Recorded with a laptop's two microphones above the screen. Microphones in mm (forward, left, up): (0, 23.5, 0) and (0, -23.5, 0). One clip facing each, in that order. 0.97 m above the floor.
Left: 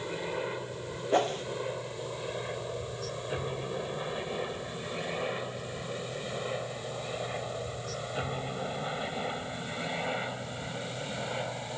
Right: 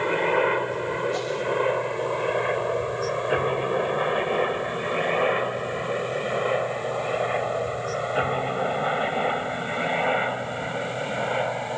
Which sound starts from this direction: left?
A whoosh, at 1.1 s.